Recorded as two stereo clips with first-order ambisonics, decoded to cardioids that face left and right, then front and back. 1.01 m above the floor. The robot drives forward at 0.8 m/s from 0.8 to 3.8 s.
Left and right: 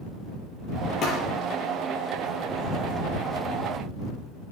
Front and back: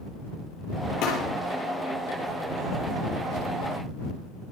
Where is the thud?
35° left, 6.5 m.